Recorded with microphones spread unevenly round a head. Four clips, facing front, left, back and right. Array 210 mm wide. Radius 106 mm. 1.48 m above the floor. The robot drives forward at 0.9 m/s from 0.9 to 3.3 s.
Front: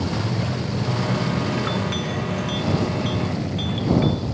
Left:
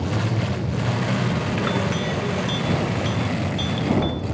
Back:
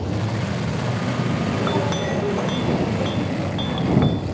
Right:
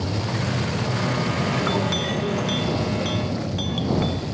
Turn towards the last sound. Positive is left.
turn(degrees=180)